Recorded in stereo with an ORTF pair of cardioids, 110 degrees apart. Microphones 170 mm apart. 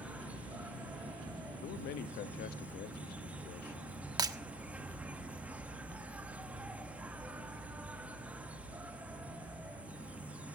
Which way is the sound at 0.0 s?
10° right.